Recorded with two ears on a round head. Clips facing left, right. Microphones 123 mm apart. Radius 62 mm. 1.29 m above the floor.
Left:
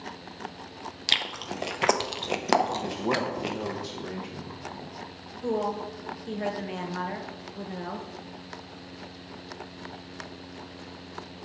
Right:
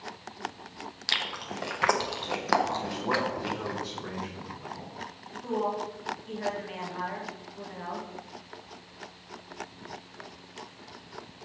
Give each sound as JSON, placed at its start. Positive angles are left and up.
{"t": 1.1, "sound": "chewing", "side_deg": 25, "distance_m": 0.6}
{"t": 2.7, "sound": "a man speaking", "side_deg": 25, "distance_m": 1.0}
{"t": 5.4, "sound": "a woman speaking", "side_deg": 45, "distance_m": 1.0}